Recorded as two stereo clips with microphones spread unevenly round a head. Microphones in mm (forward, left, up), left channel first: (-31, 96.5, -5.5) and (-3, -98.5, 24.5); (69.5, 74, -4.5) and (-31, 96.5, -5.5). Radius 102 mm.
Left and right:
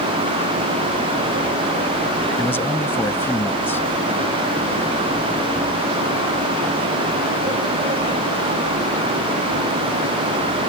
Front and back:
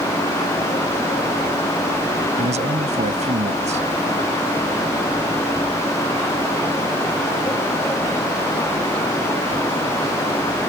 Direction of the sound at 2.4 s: Straight behind.